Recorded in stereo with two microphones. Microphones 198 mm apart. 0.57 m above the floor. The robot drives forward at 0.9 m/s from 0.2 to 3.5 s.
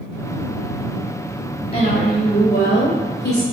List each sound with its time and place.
1.7 s a woman speaking: 35° left (ahead or behind), 2.5 m; by 3.4 s 60° left (ahead or behind), 1.8 m